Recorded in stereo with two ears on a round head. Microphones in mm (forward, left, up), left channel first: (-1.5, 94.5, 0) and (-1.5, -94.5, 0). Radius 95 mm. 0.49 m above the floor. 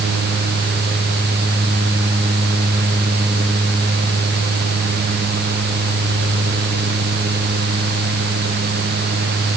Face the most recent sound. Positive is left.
No sound to turn to.